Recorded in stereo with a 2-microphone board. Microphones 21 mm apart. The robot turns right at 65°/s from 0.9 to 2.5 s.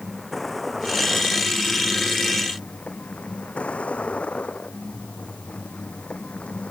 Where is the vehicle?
10° left (ahead or behind); by 6.7 s 70° left (ahead or behind).